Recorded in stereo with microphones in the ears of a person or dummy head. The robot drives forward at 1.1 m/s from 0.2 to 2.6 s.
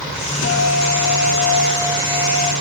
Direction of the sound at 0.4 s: 80° left.